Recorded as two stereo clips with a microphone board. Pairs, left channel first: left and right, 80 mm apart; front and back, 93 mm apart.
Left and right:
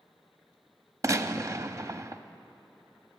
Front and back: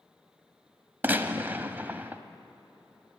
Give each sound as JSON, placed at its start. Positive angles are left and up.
{"t": 1.0, "sound": "a gunshot", "azimuth_deg": -120, "distance_m": 0.5}